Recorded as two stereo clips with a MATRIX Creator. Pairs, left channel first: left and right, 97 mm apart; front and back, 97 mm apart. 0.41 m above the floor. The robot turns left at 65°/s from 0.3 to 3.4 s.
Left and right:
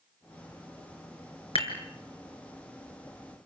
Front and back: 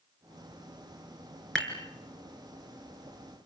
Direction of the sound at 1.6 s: 85° left.